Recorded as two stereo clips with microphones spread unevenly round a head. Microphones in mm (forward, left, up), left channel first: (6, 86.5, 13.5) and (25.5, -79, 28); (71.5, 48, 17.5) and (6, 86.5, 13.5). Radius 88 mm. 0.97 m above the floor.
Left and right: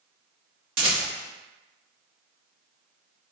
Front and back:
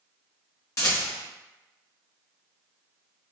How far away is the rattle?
About 0.9 m.